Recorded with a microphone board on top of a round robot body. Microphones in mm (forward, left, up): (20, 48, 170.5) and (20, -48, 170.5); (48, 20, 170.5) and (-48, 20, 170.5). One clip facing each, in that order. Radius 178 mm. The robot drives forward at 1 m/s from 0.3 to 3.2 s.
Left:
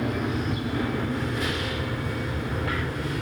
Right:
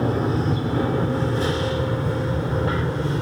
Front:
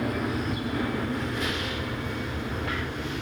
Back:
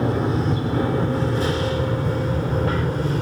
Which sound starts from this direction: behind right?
An aircraft, at 0.0 s.